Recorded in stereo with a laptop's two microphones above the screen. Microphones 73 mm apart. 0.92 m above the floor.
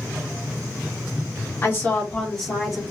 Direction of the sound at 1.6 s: 35° left (ahead or behind).